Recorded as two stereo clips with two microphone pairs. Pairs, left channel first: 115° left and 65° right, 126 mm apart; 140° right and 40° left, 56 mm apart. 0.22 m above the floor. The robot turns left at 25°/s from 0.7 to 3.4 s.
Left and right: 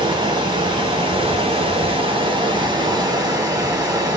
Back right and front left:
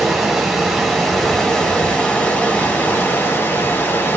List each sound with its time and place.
0.0 s running water: 40° right, 0.9 m; by 4.2 s 110° right, 0.9 m